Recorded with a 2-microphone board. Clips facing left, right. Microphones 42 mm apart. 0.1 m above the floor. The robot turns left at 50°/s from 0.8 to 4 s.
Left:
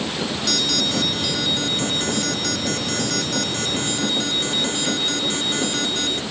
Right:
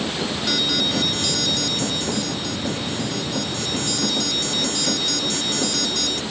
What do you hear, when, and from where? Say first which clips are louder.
0.5 s an alarm: right 1 dB; 170° right; by 6.2 s 30° left